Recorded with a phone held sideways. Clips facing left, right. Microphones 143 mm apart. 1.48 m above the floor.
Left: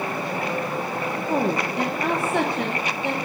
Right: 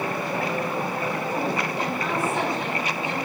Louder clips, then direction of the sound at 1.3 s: Left 3 dB; 65° left (ahead or behind).